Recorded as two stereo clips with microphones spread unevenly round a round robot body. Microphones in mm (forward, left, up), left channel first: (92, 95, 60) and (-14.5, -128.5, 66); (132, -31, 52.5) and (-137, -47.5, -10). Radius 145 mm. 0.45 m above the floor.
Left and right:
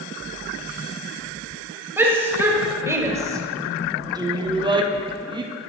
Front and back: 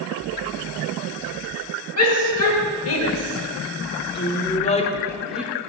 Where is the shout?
35° right, 2.5 m; by 5.5 s 160° right, 0.9 m.